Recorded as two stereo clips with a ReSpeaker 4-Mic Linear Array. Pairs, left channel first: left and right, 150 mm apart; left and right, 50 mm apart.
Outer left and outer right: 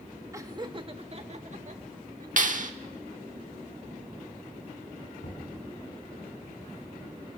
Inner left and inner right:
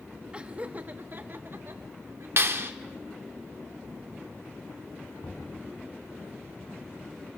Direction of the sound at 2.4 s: 60° right (ahead or behind).